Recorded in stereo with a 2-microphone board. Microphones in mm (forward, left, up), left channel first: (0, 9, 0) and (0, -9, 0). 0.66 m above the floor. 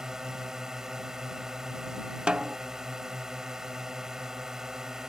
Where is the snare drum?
65° right (ahead or behind).